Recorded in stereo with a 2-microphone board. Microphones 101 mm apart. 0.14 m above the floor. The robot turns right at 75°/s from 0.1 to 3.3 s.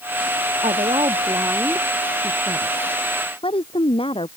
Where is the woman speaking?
90° right; by 4.3 s 110° left.